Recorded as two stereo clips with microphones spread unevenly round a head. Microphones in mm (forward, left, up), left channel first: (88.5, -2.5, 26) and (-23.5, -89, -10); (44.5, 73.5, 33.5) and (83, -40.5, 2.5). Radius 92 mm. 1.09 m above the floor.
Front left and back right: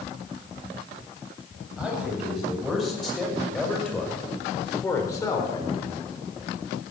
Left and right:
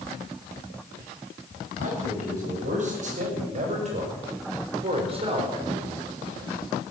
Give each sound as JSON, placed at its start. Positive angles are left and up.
{"t": 1.8, "sound": "a man speaking", "azimuth_deg": -60, "distance_m": 8.0}